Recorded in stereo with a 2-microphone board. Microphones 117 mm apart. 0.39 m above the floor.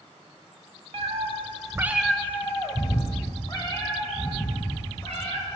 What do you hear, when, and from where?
0.9 s a cat meowing: 55° right (ahead or behind), 1.0 m; by 5.5 s 45° left (ahead or behind), 3.5 m